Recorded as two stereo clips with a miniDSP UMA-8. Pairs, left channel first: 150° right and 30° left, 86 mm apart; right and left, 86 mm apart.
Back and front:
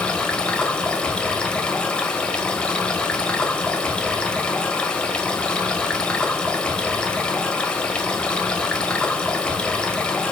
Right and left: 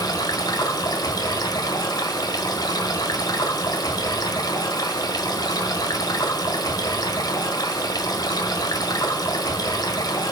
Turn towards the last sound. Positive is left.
turn(degrees=-75)